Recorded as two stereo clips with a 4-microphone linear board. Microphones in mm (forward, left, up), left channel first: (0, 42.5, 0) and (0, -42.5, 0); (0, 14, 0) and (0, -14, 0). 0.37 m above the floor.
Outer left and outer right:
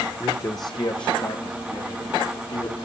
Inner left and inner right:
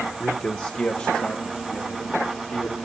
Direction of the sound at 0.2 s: 30° left (ahead or behind).